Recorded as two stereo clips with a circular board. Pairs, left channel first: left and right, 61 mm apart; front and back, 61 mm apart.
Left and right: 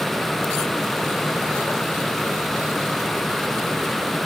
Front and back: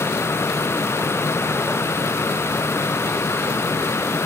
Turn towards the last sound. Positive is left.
No sound to turn to.